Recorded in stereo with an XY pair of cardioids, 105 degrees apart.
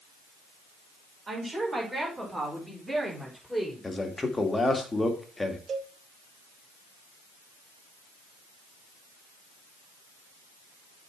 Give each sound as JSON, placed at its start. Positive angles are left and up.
{"t": 1.3, "sound": "a woman speaking", "azimuth_deg": -35, "distance_m": 5.5}
{"t": 3.8, "sound": "a man speaking", "azimuth_deg": 20, "distance_m": 1.9}
{"t": 5.7, "sound": "a cowbell", "azimuth_deg": -55, "distance_m": 1.1}